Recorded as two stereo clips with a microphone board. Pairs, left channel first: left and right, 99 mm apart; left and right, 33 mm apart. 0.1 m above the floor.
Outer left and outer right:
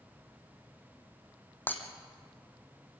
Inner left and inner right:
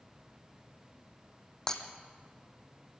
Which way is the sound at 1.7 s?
20° left (ahead or behind).